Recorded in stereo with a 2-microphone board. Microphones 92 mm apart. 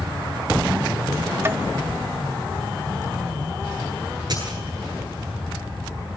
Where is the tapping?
30° right (ahead or behind), 0.8 m.